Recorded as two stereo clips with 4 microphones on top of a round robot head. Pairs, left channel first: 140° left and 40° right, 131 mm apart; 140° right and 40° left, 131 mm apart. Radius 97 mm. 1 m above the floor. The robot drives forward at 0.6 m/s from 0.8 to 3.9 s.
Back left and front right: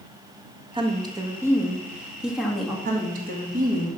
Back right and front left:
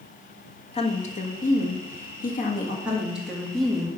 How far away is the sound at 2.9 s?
About 2 m.